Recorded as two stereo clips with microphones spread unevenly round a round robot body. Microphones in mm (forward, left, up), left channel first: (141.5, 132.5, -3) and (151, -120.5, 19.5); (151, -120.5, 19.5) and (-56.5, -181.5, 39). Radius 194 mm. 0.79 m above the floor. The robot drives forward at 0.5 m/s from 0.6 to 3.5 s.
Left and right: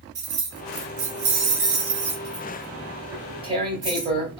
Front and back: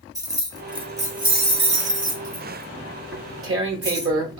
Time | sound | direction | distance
0.1 | keys jangling | 85° right | 0.9 m
3.1 | tearing paper | 150° right | 0.6 m